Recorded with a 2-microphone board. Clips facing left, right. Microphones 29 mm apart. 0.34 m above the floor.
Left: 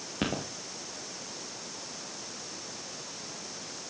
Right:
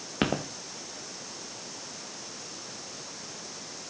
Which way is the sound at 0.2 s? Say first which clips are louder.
Right 4 dB; 30° right (ahead or behind).